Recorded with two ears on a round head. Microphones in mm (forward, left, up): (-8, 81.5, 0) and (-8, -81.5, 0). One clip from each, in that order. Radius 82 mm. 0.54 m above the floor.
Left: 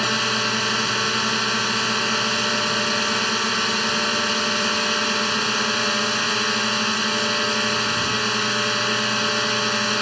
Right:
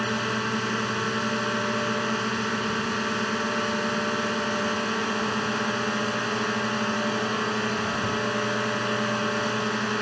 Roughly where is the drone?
Left.